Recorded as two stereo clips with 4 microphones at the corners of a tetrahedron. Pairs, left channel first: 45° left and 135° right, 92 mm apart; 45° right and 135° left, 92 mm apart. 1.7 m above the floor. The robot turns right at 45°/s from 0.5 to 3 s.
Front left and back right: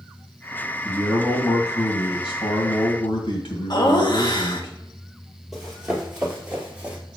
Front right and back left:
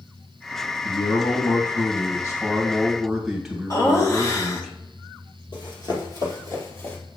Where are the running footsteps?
50° right, 2.5 m; by 7.0 s 75° right, 1.9 m.